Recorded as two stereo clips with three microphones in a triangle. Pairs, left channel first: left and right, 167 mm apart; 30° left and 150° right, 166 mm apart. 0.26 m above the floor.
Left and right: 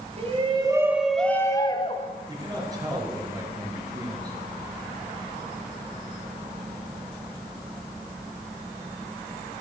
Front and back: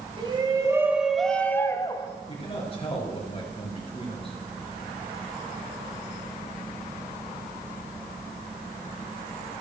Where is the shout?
110° right, 1.4 m; by 2.1 s 75° left, 1.4 m.